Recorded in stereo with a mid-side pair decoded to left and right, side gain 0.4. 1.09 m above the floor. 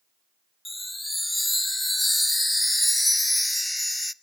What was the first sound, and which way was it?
A chime, 10° left.